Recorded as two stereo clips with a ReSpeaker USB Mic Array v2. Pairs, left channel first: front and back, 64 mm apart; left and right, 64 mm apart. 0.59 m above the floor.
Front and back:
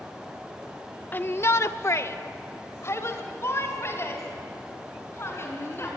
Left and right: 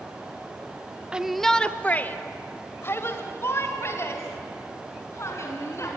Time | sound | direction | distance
1.1 | a shout | 30° right | 0.7 m